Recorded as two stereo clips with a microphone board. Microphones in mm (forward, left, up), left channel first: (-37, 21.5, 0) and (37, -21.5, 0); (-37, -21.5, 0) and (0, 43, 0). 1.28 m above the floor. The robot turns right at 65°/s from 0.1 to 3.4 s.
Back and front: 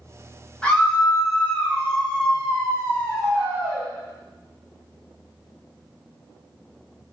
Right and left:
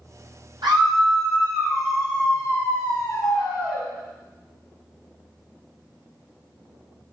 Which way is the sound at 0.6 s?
70° left.